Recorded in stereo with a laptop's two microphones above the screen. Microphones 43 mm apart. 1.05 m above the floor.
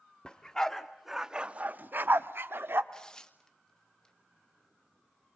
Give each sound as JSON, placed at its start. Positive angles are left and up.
{"t": 0.2, "sound": "a dog barking", "side_deg": 20, "distance_m": 1.1}
{"t": 2.9, "sound": "tearing paper", "side_deg": 20, "distance_m": 1.2}